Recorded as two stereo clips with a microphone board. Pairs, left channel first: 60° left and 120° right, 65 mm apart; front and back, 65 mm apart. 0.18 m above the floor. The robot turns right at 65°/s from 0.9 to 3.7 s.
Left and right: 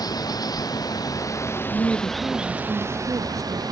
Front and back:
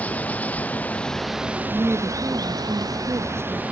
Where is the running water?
65° left; by 3.7 s 110° right.